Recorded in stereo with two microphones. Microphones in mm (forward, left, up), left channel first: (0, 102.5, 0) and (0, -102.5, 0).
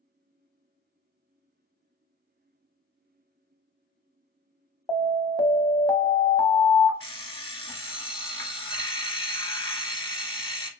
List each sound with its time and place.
4.9 s an alarm: 20° left (ahead or behind), 0.6 m
7.0 s an alarm clock: 25° left (ahead or behind), 0.8 m